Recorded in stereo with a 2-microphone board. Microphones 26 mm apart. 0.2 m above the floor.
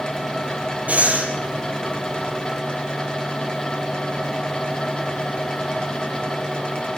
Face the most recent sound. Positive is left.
turn(degrees=-65)  # may be behind; listen again after turning